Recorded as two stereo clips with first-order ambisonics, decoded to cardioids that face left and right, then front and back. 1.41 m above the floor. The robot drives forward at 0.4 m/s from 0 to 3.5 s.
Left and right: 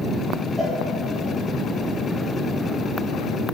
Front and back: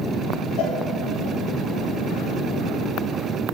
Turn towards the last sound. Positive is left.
turn(degrees=5)